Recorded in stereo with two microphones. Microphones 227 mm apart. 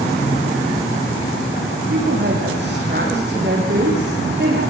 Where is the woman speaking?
50° right (ahead or behind), 6.5 m.